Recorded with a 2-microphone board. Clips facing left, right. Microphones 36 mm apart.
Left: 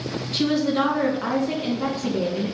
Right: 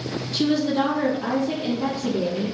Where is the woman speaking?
45° left (ahead or behind), 1.4 m.